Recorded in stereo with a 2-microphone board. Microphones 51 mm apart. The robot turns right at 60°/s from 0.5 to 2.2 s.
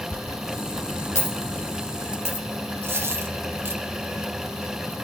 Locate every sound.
0.1 s a dropped coin: 25° left (ahead or behind), 4.5 m; by 2.5 s 50° left (ahead or behind), 4.5 m
2.8 s a dropped coin: 50° right (ahead or behind), 2.5 m